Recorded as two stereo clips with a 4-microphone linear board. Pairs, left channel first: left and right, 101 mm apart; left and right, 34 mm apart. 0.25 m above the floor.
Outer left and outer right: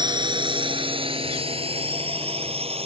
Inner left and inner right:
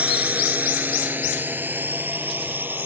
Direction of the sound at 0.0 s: 45° right (ahead or behind).